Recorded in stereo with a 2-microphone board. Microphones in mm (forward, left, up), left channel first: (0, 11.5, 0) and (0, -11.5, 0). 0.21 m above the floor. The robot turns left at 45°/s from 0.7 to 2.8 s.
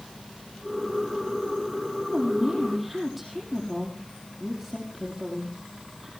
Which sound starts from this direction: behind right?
A woman speaking, at 2.1 s.